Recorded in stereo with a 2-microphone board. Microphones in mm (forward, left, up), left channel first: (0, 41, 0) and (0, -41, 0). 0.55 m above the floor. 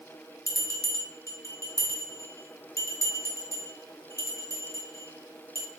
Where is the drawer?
I don't hear a drawer.